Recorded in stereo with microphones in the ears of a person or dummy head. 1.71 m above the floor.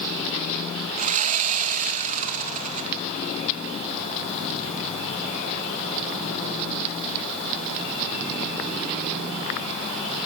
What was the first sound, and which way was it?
Sawing, 35° right (ahead or behind).